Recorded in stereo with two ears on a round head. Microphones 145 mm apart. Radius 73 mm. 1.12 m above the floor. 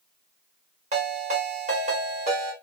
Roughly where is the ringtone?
Right.